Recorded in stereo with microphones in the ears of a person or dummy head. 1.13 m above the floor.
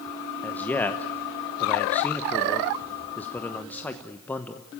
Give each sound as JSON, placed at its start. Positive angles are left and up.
{"t": 0.4, "sound": "a man speaking", "side_deg": 10, "distance_m": 0.9}